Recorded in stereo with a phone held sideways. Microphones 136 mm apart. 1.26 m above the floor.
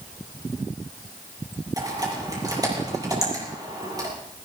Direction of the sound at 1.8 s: 30° right (ahead or behind).